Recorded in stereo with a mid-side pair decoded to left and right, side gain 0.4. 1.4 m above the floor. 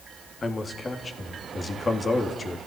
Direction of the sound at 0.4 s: 35° left.